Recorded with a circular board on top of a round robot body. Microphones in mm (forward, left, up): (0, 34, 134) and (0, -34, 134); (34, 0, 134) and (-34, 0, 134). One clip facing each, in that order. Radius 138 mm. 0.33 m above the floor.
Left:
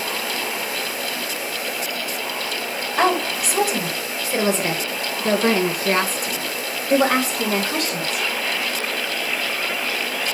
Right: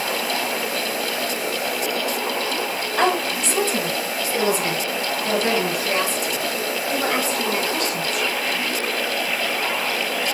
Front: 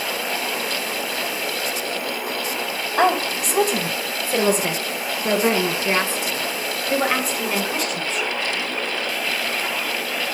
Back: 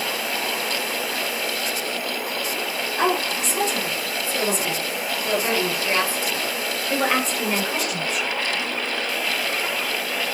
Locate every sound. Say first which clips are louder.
3.0 s a woman speaking: left 1 dB, front 4 dB; 5° left, 2.5 m; by 8.3 s 100° left, 2.5 m